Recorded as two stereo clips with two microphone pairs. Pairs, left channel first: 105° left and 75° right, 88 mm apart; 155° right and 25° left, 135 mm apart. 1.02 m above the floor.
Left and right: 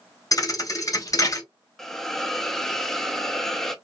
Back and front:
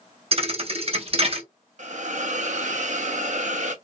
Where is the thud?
60° left, 0.7 m.